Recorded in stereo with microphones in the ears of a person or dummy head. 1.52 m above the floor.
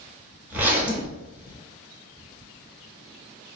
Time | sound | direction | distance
0.5 | a zipper | 10° right (ahead or behind) | 0.7 m